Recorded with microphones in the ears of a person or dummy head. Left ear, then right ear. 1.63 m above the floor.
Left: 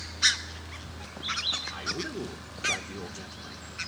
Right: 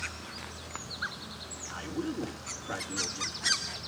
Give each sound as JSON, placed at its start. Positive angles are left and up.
{"t": 1.7, "sound": "a man speaking", "side_deg": 65, "distance_m": 1.6}